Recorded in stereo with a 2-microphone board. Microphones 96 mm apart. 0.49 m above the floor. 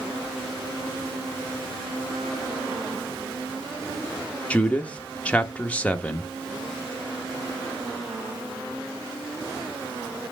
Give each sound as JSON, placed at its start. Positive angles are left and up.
{"t": 4.5, "sound": "a man speaking", "side_deg": 15, "distance_m": 0.7}